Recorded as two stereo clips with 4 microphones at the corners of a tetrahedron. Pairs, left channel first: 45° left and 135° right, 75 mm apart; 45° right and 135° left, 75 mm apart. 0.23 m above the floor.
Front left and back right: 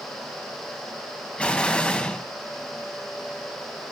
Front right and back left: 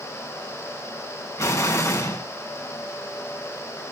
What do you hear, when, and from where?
1.4 s an explosion: 25° right, 2.0 m